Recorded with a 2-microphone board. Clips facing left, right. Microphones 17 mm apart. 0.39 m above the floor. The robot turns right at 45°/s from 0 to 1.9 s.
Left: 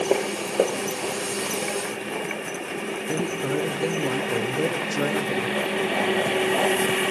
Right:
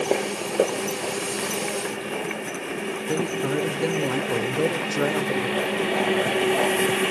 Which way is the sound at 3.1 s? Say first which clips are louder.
Right 1 dB; 15° right (ahead or behind).